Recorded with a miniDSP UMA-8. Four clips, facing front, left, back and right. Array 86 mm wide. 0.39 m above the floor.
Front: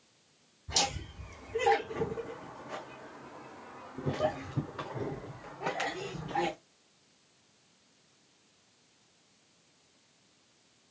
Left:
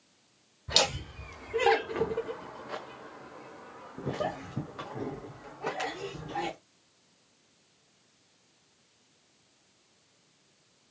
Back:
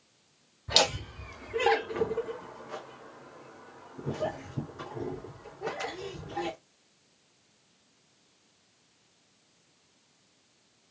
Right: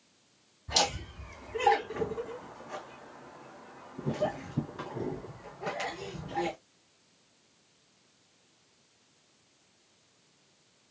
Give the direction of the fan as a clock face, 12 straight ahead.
No fan in this recording.